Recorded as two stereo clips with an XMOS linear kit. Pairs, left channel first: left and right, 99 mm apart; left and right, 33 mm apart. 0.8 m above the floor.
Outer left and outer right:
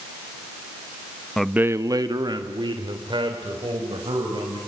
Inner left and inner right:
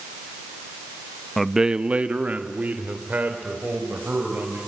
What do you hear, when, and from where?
1.4 s a man speaking: 5° left (ahead or behind), 0.6 m; by 4.6 s 60° right (ahead or behind), 4.5 m